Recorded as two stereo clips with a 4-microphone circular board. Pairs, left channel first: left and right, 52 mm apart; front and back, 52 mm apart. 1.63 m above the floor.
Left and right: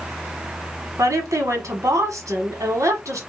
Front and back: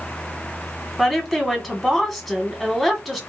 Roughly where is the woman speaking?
Right.